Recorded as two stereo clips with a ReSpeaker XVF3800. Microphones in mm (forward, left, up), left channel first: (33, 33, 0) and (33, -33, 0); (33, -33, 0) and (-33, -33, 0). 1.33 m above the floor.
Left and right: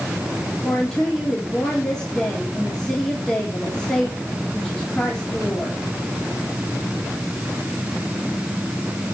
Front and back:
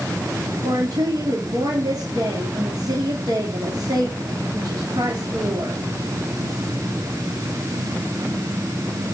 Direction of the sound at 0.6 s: 170° left.